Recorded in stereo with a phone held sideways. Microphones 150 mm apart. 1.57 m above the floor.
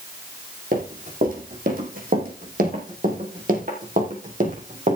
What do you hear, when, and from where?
0.7 s running footsteps: 70° right (ahead or behind), 4.5 m; by 5.0 s 55° right (ahead or behind), 4 m